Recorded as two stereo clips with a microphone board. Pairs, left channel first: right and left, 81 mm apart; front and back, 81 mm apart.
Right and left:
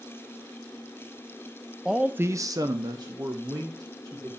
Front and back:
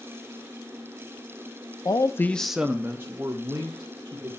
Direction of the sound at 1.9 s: 5° left.